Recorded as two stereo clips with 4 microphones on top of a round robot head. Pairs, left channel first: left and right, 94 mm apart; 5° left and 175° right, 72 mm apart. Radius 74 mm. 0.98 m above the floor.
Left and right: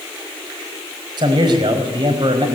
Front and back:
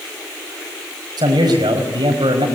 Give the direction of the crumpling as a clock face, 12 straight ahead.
I don't hear crumpling.